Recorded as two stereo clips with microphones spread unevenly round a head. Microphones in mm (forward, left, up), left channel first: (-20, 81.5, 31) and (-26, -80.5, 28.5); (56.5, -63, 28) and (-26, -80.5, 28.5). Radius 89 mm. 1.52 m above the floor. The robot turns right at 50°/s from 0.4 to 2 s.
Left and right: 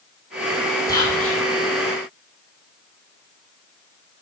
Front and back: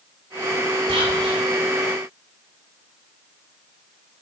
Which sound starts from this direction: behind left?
Whispering, at 0.9 s.